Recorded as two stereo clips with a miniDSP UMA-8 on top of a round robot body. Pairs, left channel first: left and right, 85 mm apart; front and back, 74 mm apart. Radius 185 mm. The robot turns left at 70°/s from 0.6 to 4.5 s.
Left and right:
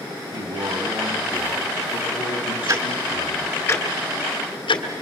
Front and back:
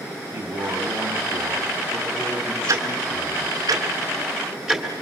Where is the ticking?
135° right, 2.5 m; by 4.9 s 100° left, 2.5 m.